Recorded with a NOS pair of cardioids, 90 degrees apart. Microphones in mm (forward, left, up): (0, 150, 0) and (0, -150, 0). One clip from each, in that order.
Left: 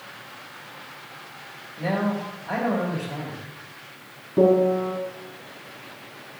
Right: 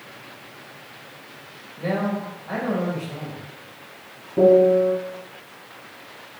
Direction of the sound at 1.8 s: 5° left.